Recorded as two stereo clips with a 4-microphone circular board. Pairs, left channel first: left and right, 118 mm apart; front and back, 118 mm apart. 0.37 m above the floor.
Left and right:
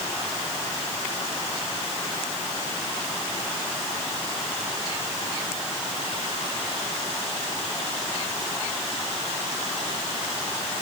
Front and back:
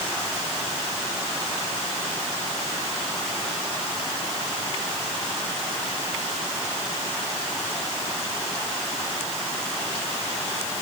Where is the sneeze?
I don't hear a sneeze.